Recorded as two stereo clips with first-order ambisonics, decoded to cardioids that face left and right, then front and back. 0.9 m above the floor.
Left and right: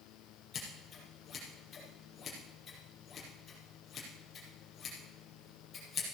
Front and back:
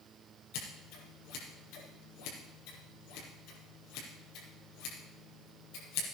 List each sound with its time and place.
0.5 s scissors: 20° left, 5 m